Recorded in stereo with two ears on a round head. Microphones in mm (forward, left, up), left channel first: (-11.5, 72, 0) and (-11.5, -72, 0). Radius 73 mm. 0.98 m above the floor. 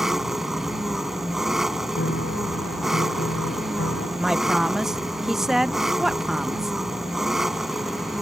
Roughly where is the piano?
Left.